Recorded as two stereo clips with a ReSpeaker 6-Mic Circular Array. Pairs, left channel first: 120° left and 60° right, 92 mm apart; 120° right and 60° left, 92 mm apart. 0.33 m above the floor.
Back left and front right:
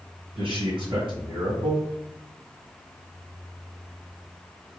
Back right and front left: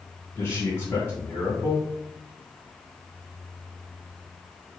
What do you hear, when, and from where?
0.3 s a man speaking: 60° right, 1.8 m